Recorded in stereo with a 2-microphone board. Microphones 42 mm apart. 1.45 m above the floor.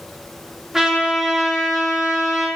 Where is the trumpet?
10° right (ahead or behind), 2.5 m.